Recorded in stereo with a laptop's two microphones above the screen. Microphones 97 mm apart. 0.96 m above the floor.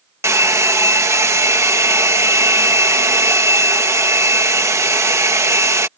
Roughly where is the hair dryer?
Right.